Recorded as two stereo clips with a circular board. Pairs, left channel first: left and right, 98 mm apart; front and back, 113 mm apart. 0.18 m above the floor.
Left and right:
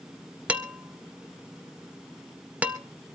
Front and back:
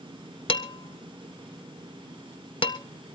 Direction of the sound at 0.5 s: 20° right.